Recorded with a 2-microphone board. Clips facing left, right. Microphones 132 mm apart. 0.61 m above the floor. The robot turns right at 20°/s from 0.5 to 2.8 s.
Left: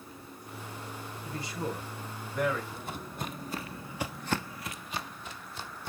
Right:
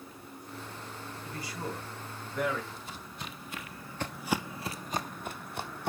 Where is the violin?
I don't hear a violin.